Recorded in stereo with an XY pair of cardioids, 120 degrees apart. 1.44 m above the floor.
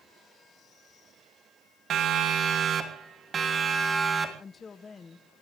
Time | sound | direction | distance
1.9 | a siren | 60° right | 3 m
4.4 | a woman speaking | 30° left | 1.1 m